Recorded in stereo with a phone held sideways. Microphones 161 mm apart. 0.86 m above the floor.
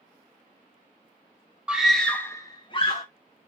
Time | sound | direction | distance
1.7 | a scream | 5° right (ahead or behind) | 1.2 m